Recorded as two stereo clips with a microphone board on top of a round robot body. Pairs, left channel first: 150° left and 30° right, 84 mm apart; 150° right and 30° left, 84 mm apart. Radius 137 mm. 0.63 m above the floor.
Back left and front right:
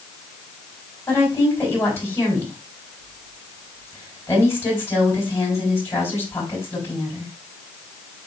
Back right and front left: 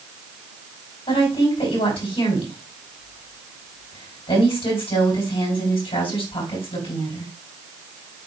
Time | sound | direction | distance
1.1 | a woman speaking | 150° right | 6 m